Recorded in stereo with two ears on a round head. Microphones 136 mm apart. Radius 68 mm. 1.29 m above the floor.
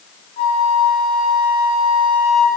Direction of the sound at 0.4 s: 40° left (ahead or behind).